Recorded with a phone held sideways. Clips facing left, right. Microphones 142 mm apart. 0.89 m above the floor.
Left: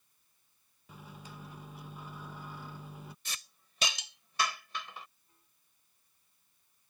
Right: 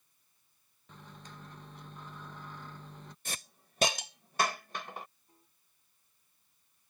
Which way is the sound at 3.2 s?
50° right (ahead or behind).